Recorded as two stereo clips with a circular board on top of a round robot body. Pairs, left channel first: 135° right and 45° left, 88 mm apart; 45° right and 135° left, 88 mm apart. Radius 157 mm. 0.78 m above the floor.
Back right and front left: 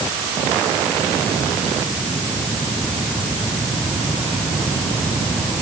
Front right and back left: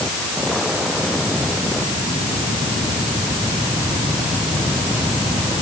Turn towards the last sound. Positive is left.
No sound to turn to.